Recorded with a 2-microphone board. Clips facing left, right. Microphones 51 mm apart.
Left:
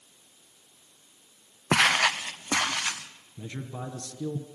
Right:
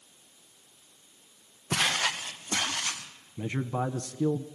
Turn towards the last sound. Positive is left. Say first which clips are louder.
# right 7 dB
turn(degrees=-30)  # may be behind; listen again after turning